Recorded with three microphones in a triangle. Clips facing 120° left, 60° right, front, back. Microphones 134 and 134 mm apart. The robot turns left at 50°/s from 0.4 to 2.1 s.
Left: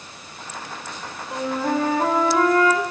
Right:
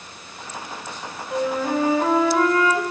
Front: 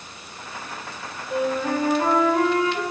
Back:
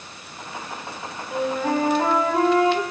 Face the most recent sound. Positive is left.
turn(degrees=135)